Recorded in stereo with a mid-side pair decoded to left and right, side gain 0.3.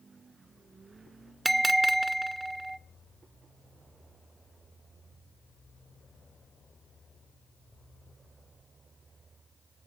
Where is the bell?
25° right, 0.9 m.